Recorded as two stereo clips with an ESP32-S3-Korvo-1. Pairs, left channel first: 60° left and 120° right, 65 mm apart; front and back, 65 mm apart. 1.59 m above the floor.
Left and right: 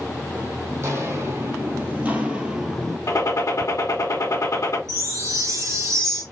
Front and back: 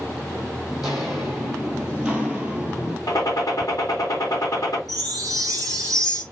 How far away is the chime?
About 3 m.